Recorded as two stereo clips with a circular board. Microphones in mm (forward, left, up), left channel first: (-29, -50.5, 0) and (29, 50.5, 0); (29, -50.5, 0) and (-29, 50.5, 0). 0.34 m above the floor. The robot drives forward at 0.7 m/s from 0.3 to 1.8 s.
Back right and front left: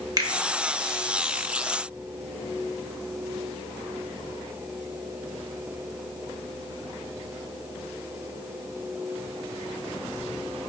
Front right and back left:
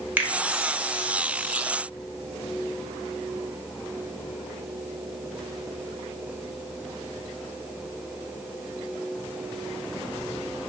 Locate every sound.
0.2 s a finger snap: 60° left, 0.8 m